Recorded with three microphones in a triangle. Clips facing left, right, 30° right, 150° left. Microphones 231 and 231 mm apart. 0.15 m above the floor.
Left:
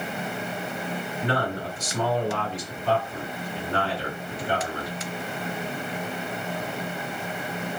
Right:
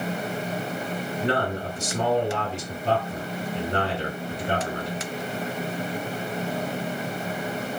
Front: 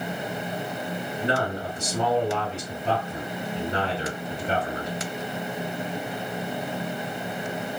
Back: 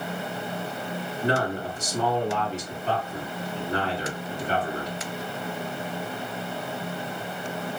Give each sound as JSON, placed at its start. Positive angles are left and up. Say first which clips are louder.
{"t": 1.2, "sound": "a man speaking", "louder": "right 2 dB, back 2 dB", "azimuth_deg": -55, "distance_m": 1.8}